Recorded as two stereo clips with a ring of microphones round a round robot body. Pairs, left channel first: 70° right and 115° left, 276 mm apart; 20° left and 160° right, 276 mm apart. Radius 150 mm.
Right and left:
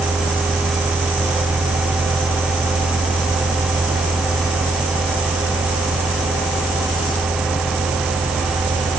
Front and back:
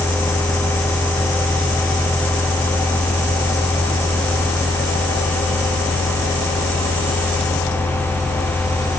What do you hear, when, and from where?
Only background noise.